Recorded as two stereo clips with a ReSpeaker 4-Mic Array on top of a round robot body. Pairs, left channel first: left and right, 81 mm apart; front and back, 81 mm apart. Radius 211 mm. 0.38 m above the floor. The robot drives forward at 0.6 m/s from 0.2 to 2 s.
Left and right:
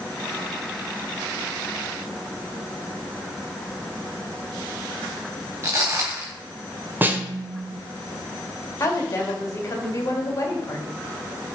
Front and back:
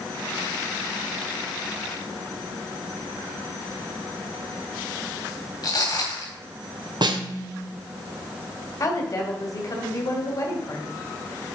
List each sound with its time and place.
5.6 s footsteps: 35° right, 3.5 m
7.0 s a snare drum: 155° right, 1.0 m
8.8 s a woman speaking: 40° left, 2.5 m